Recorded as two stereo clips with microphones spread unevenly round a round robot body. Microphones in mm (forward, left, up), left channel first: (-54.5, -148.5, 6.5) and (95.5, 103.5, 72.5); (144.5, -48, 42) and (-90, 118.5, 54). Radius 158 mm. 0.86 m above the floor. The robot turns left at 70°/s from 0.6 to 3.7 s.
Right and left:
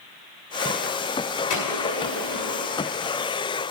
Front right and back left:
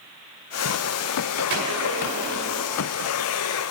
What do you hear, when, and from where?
1.5 s a gunshot: 150° right, 6.5 m; by 2.8 s 120° left, 6.5 m